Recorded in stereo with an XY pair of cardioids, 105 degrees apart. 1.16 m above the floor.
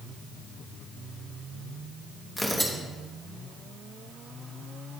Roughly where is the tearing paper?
Ahead.